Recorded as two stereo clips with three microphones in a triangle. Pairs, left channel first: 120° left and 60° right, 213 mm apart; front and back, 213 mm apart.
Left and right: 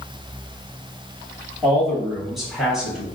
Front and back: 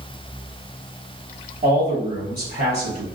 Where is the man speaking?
155° right, 2 m; by 3.0 s 145° right, 3 m.